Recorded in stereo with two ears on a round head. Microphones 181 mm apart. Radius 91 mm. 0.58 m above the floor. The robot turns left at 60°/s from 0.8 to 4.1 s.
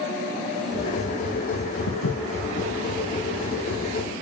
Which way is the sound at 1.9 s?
80° left.